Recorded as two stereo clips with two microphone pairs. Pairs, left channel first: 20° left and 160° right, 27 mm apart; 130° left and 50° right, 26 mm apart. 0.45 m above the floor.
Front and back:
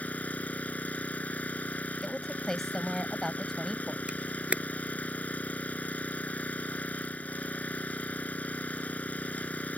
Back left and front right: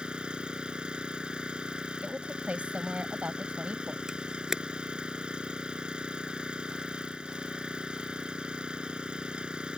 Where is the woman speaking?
50° right.